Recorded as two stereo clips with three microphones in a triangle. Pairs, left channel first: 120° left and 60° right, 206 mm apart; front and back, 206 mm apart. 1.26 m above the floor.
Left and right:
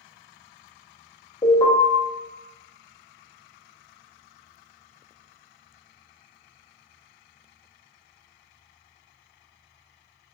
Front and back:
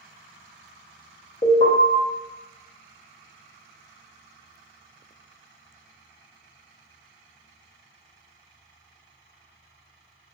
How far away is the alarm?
About 1.1 m.